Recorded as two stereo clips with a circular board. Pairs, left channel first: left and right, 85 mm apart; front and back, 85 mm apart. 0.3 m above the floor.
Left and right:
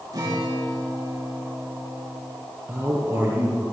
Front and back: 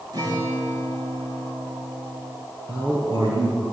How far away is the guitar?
About 7.5 m.